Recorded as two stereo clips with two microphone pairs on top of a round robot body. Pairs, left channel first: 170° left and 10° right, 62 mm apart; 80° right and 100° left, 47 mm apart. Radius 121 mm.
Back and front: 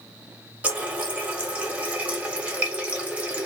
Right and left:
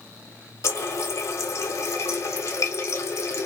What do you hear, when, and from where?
0.6 s a running tap: 80° right, 0.8 m